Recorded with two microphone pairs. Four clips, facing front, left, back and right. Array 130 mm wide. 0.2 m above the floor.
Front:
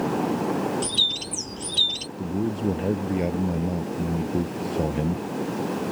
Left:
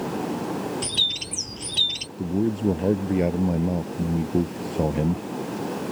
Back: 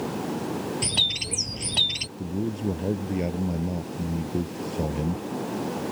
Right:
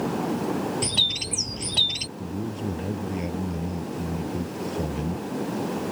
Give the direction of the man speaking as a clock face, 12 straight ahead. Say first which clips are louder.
Left 8 dB, front 3 dB; 9 o'clock.